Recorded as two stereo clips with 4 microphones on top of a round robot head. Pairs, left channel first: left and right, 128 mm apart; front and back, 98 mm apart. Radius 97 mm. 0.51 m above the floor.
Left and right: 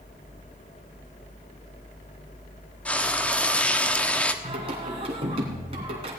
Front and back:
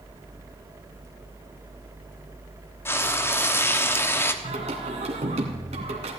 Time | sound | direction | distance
2.9 | frying | 20° left | 1.2 m
4.4 | singing | 145° right | 1.9 m